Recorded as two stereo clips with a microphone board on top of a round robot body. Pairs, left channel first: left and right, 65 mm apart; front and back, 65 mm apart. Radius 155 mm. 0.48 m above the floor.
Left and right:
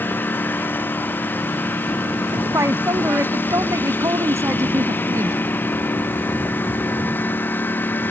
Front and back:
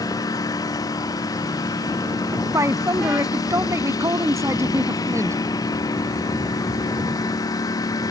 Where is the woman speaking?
135° right.